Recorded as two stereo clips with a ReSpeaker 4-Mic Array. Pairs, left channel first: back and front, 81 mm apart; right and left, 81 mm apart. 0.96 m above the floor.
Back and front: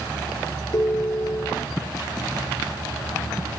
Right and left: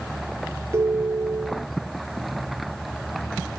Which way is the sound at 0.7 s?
145° left.